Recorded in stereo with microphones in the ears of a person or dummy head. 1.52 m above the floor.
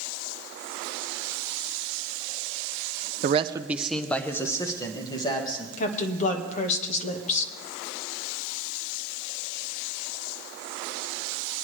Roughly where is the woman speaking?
Left.